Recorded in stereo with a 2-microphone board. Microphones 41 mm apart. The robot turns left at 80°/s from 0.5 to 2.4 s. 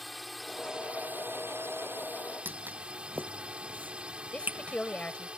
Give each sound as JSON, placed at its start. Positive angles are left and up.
{"t": 0.0, "sound": "a drone", "azimuth_deg": 0}
{"t": 2.5, "sound": "footsteps", "side_deg": -55}
{"t": 4.3, "sound": "a woman speaking", "side_deg": 25}